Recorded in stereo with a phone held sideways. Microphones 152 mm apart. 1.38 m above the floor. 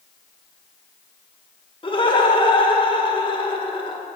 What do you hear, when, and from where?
1.8 s laughter: 30° left (ahead or behind), 1.8 m